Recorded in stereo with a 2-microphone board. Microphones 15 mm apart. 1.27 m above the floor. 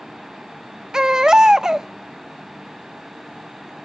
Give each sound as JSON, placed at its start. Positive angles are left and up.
{"t": 0.9, "sound": "a baby crying", "side_deg": -40, "distance_m": 0.5}